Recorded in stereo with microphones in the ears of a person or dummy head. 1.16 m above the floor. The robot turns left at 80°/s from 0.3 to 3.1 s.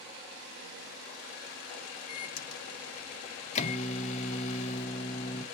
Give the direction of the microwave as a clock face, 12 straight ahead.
8 o'clock.